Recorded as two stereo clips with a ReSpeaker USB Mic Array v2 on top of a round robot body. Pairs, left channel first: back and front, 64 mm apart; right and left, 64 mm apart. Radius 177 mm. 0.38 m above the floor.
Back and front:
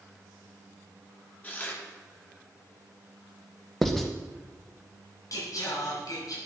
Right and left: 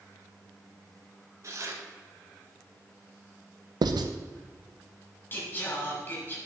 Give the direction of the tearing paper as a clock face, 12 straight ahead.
8 o'clock.